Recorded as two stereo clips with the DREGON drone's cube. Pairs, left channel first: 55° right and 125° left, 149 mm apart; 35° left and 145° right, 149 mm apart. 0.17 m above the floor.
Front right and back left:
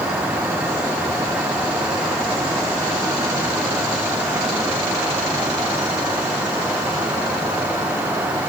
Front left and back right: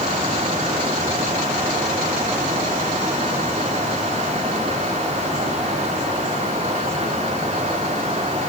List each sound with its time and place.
Only background noise.